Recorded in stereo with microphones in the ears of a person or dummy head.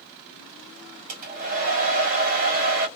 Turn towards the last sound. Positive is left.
turn(degrees=-40)  # may be behind; listen again after turning